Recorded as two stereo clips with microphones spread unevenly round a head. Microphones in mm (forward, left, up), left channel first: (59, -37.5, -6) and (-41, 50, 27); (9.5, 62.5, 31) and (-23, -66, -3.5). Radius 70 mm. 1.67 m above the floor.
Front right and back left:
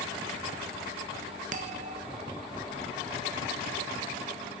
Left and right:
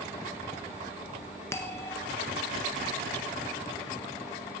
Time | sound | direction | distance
1.5 | a bell | 140° left | 1.4 m